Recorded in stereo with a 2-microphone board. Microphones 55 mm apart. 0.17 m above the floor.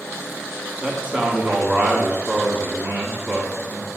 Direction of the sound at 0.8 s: 25° right (ahead or behind).